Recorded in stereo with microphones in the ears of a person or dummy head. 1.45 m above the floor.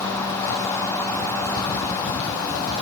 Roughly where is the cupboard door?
I don't hear a cupboard door.